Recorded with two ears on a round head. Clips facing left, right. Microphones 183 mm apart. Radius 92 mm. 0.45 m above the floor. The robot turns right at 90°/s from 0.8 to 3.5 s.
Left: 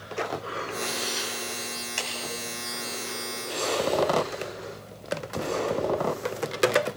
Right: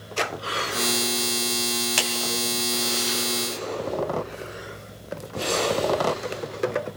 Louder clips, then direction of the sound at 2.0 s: Right 7 dB; 70° right (ahead or behind).